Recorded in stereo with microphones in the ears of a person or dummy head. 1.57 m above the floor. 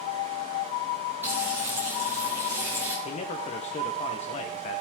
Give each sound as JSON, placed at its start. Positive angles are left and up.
{"t": 1.2, "sound": "frying", "side_deg": -15, "distance_m": 2.5}
{"t": 3.0, "sound": "a man speaking", "side_deg": 35, "distance_m": 1.3}